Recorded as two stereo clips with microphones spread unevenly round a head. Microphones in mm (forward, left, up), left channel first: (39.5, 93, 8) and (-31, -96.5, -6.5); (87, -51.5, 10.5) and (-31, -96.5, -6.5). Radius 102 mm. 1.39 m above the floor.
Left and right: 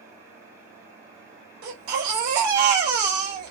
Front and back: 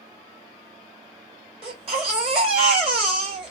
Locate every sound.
1.6 s a baby crying: 120° right, 2 m